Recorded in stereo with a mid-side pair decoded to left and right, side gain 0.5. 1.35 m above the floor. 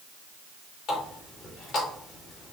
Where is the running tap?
65° left, 2.5 m.